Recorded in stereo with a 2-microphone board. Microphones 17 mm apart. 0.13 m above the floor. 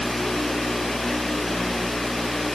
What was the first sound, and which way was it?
Only background noise.